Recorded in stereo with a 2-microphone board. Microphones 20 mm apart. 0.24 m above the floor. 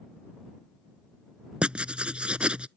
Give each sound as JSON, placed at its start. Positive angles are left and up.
{"t": 1.6, "sound": "writing", "side_deg": -70}